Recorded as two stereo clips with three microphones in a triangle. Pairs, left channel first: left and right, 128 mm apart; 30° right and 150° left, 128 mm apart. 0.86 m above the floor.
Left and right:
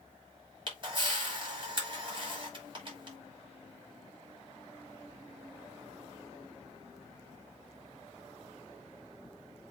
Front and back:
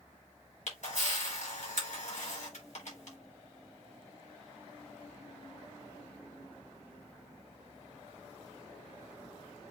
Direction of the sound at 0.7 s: 45° right.